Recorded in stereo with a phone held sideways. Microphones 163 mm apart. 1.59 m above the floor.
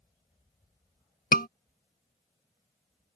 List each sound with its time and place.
1.3 s a scream: 65° left (ahead or behind)